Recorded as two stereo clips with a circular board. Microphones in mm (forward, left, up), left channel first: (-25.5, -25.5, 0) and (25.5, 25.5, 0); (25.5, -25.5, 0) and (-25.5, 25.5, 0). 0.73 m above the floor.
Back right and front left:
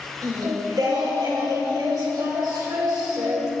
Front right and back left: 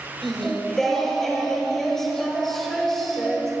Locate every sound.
0.2 s singing: 40° left, 3 m